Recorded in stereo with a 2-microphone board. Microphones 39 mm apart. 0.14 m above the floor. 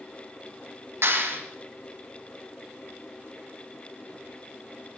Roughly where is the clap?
Right.